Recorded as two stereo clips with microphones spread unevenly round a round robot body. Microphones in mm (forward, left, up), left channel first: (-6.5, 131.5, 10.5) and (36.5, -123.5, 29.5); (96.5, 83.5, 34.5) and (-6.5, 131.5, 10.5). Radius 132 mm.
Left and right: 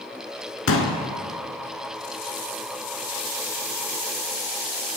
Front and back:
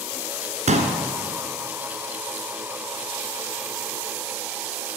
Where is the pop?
140° left, 1.3 m.